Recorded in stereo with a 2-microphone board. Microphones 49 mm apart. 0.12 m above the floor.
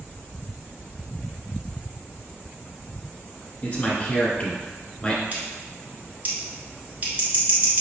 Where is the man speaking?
30° left (ahead or behind), 1.4 m; by 5.2 s 25° left (ahead or behind), 1.4 m.